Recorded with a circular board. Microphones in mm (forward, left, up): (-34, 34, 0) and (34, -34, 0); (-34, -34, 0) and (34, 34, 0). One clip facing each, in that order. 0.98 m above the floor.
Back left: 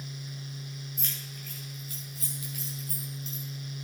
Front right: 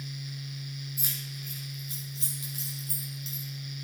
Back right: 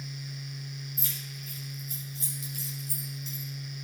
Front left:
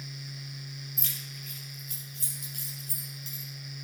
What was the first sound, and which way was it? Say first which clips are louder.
Keys jangling: front right 1 dB, back right 2 dB; 35° left.